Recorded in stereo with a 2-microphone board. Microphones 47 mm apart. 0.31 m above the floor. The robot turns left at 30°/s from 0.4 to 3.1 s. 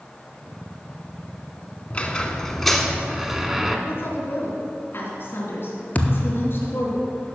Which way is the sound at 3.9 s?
55° left (ahead or behind).